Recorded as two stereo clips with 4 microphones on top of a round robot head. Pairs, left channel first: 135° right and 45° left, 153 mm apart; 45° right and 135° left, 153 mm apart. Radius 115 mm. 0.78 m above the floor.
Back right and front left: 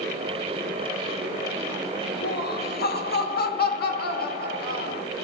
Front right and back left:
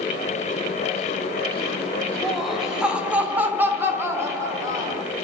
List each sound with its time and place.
2.2 s laughter: 135° right, 3 m; by 5.0 s 155° right, 4 m